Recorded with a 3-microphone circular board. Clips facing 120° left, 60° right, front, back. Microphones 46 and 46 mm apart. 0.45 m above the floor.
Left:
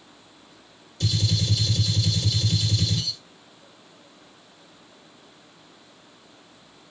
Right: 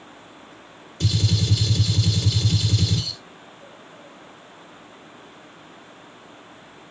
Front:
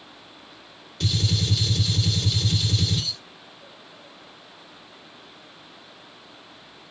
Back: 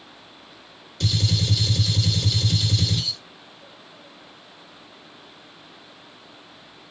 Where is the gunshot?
85° right, 1.9 m.